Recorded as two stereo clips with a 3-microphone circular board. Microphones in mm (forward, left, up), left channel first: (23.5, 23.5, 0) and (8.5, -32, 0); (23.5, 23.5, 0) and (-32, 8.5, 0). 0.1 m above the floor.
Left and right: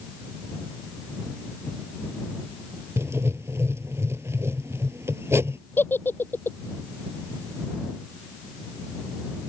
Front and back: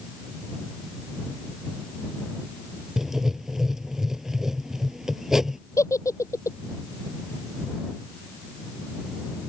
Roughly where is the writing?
Right.